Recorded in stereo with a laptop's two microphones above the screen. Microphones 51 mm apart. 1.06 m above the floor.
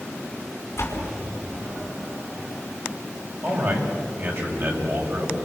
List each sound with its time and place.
0.8 s a door slam: 50° left (ahead or behind), 5.5 m
3.4 s a man speaking: 65° right (ahead or behind), 6.5 m